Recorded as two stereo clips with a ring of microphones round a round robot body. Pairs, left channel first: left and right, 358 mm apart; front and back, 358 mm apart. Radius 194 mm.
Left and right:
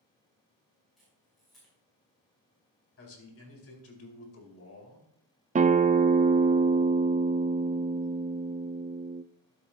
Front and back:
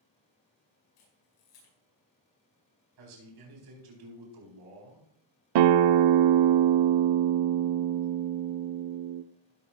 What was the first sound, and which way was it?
A camera shutter, straight ahead.